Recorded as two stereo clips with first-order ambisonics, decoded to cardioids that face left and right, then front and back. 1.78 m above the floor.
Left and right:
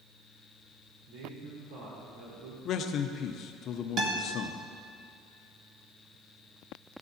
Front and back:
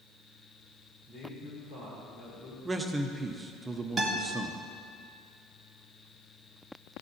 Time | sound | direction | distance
1.1 | a man speaking | 70° right | 5 m
2.6 | a man speaking | 105° left | 0.8 m
4.0 | a guitar | 110° right | 1.9 m